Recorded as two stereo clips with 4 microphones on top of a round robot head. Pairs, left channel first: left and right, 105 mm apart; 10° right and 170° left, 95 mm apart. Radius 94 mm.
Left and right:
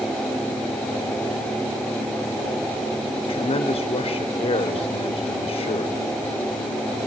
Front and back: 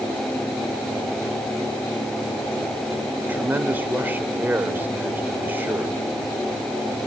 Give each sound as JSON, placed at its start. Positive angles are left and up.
{"t": 3.2, "sound": "a man speaking", "azimuth_deg": 105, "distance_m": 2.0}